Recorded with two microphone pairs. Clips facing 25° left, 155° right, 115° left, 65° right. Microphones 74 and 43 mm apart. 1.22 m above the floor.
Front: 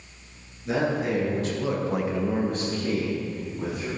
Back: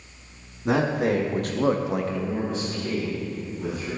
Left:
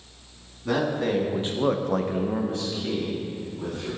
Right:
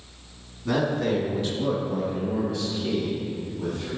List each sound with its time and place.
0.7 s a man speaking: 165° right, 2.0 m; by 3.9 s 45° left, 3 m